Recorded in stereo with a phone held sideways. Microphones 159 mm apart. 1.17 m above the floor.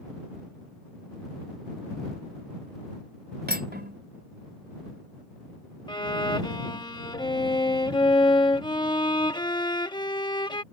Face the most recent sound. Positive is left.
turn(degrees=25)  # may be behind; listen again after turning